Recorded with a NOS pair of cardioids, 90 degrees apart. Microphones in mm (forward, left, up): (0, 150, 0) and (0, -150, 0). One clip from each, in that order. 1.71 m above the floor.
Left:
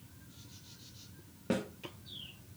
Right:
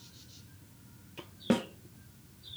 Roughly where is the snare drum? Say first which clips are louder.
Right 5 dB; ahead right.